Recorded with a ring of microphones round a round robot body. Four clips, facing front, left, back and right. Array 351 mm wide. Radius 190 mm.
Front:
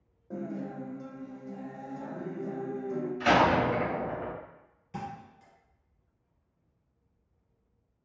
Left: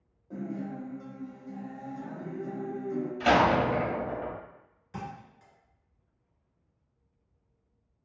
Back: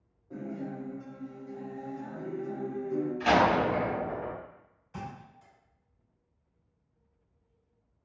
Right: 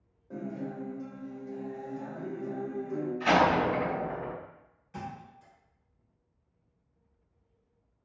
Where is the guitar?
15° right, 0.9 m.